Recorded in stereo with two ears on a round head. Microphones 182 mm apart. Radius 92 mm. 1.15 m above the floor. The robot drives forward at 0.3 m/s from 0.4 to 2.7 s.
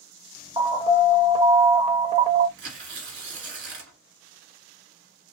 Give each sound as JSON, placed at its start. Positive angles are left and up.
{"t": 0.6, "sound": "an alarm", "side_deg": -20, "distance_m": 1.0}
{"t": 2.6, "sound": "tearing paper", "side_deg": -65, "distance_m": 1.3}